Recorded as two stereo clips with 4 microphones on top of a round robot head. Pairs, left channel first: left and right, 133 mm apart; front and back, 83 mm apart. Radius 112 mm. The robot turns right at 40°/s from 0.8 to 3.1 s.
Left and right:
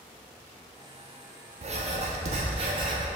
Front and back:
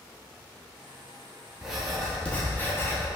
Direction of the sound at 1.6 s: 100° right.